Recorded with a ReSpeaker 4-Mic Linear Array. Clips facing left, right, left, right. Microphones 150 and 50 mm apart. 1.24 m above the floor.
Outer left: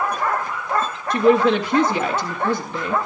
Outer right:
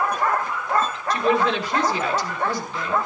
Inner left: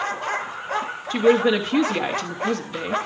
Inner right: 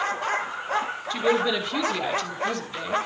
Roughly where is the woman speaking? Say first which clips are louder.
Outer left 6 dB, inner left 6 dB; left.